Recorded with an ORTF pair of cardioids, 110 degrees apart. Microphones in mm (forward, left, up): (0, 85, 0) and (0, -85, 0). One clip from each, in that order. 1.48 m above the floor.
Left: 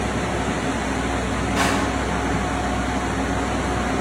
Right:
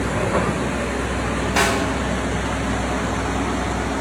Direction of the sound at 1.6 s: 60° right.